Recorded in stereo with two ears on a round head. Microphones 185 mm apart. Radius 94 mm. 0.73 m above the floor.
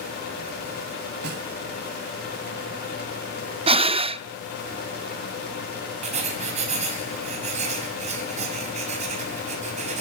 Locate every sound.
1.2 s a snare drum: 50° right (ahead or behind), 1.9 m
3.7 s breathing: 30° right (ahead or behind), 0.6 m
6.0 s writing: 35° right (ahead or behind), 4.5 m